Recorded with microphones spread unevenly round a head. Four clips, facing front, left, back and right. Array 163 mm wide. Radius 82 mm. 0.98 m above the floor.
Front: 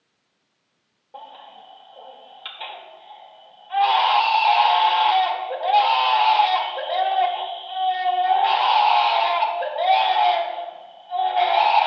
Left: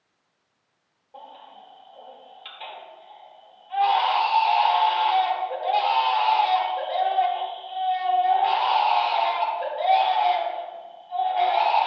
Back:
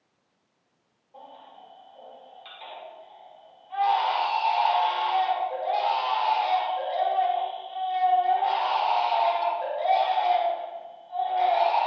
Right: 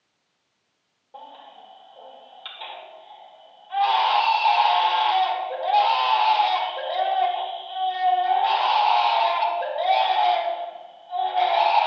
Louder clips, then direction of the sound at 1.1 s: Right 1 dB, front 6 dB; 15° right.